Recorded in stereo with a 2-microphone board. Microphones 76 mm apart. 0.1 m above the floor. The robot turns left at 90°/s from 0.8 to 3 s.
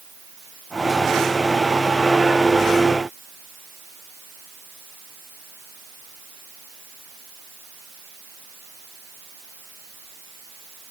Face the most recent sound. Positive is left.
No sound to turn to.